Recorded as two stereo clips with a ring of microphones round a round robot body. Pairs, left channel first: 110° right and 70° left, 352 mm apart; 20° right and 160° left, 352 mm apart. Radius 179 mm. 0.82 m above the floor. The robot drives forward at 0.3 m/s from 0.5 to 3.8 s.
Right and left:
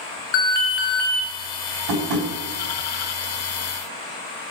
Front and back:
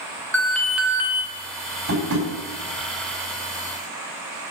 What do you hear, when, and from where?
0.3 s an alarm: 110° right, 0.9 m; by 1.2 s 120° right, 1.0 m
1.9 s tapping: 95° left, 4 m